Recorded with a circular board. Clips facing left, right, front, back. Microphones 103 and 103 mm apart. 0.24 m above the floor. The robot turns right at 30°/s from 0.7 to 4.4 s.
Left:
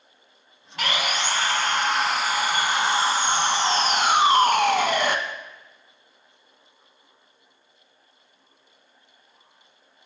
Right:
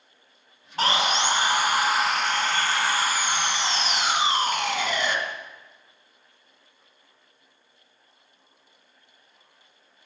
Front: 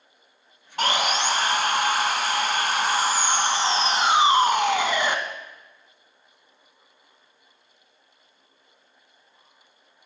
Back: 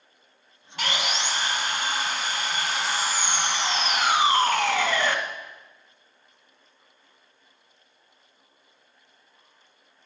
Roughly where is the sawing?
Ahead right.